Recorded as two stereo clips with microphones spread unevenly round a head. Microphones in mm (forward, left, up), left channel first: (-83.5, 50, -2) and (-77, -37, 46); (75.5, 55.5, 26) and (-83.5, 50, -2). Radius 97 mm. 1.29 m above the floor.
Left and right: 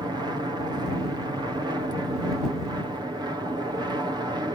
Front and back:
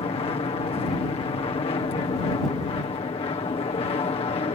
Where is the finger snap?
I don't hear a finger snap.